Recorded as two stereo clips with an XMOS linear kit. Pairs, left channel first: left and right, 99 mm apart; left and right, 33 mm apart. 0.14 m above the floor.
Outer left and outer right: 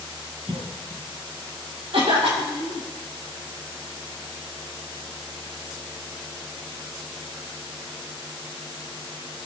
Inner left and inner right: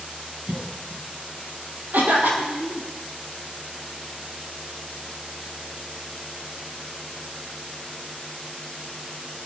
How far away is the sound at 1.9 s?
About 4.5 m.